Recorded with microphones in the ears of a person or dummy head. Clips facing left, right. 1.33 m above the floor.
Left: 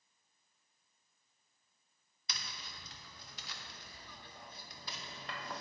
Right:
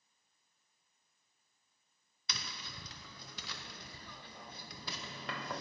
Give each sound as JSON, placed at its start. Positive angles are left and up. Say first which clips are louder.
{"t": 2.3, "sound": "tapping", "louder": "right 3 dB", "side_deg": -55, "distance_m": 0.6}